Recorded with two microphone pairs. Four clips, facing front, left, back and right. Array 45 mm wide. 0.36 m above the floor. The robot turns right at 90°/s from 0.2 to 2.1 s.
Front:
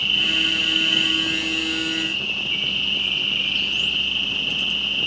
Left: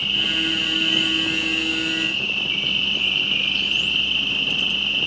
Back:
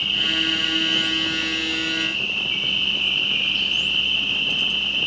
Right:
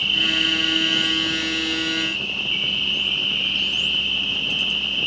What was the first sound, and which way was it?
An insect, 35° right.